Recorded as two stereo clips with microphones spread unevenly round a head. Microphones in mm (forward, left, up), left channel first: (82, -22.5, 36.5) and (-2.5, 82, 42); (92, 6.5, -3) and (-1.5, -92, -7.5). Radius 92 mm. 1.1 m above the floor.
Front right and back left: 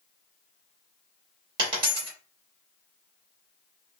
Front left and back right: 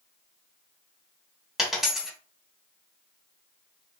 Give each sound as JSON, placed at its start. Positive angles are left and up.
{"t": 1.6, "sound": "a dropped coin", "azimuth_deg": 135, "distance_m": 0.9}